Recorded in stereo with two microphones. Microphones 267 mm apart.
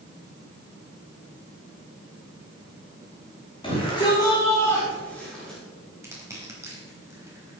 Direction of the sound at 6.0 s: 10° right (ahead or behind).